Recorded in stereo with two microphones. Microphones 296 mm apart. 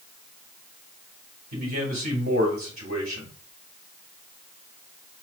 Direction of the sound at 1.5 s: 55° right (ahead or behind).